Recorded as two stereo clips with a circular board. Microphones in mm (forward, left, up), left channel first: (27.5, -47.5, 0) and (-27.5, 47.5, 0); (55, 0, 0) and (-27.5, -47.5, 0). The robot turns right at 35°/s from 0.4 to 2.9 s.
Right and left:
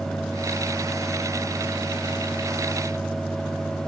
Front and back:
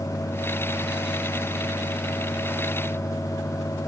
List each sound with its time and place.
Only background noise.